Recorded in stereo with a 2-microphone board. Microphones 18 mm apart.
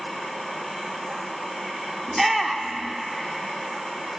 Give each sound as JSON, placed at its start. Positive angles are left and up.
{"t": 2.1, "sound": "a shout", "side_deg": -5, "distance_m": 1.1}